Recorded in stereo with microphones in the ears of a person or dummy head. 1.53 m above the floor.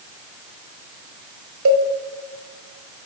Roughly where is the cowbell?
Right.